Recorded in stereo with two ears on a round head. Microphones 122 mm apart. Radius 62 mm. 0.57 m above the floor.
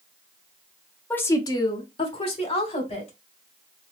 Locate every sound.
1.1 s a woman speaking: 10° left (ahead or behind), 0.6 m; by 3.1 s 50° left (ahead or behind), 2.5 m